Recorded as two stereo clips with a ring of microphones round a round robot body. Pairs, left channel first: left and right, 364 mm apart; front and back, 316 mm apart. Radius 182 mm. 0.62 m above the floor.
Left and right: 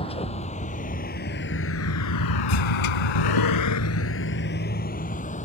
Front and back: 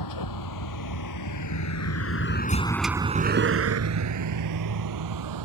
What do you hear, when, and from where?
0.0 s a vehicle: 15° left; by 5.5 s 160° left